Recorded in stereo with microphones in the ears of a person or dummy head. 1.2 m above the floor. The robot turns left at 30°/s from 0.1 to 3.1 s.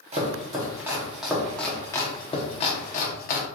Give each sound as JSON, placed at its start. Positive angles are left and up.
{"t": 0.1, "sound": "chopping", "side_deg": -35, "distance_m": 0.8}